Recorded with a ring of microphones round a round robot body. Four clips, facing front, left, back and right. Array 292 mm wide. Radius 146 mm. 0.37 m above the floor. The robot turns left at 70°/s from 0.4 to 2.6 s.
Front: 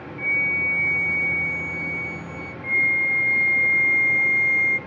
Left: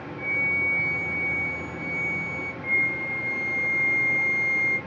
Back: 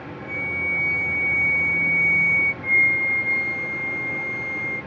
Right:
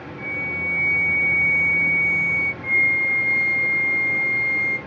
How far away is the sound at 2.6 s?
About 1.8 m.